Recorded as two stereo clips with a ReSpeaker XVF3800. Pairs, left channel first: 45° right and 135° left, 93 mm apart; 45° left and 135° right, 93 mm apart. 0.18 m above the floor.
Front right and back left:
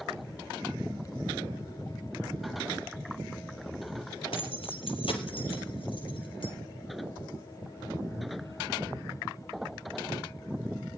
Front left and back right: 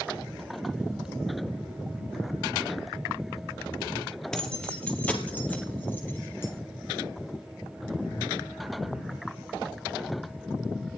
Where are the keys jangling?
40° right, 3 m; by 6.5 s 20° right, 4 m.